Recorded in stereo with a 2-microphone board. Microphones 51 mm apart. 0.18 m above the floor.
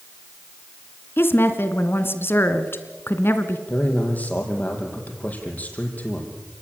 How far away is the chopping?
No chopping in this recording.